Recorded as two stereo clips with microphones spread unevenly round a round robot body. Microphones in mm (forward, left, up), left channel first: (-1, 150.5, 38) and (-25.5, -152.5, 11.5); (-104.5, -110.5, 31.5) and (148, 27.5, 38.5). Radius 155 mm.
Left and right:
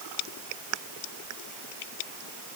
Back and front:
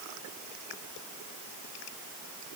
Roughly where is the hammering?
No hammering in this recording.